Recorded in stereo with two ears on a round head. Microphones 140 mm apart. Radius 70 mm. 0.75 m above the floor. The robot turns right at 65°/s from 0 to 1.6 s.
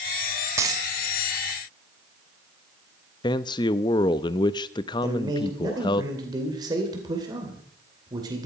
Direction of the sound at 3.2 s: 30° left (ahead or behind).